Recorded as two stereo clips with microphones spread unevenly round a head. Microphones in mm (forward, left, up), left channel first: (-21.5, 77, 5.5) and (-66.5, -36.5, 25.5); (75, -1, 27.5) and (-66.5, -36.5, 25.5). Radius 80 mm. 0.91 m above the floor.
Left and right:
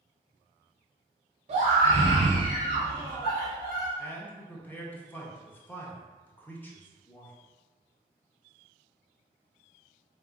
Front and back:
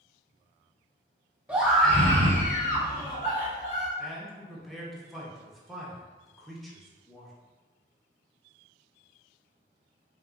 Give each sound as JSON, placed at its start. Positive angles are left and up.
{"t": 1.5, "sound": "a scream", "azimuth_deg": -90, "distance_m": 1.1}
{"t": 4.0, "sound": "a man speaking", "azimuth_deg": 105, "distance_m": 0.7}